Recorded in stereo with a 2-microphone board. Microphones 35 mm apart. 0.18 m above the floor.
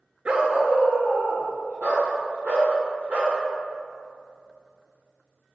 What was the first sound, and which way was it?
A dog barking, 40° right (ahead or behind).